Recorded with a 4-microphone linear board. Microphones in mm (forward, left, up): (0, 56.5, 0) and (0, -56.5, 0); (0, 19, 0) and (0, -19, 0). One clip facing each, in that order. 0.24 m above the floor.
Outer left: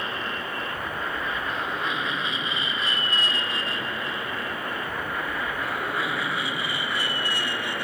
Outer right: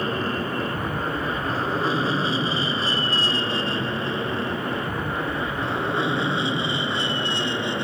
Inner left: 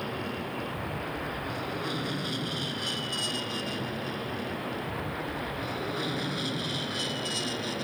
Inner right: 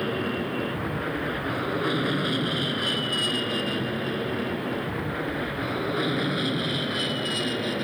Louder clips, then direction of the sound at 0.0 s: Outer right 6 dB, inner right 6 dB; 40° right (ahead or behind).